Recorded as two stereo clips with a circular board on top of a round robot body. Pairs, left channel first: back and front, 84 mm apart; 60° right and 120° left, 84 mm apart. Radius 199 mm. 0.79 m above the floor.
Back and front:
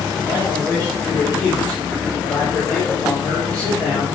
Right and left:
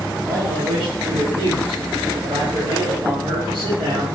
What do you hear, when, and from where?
0.2 s a man speaking: 110° left, 3 m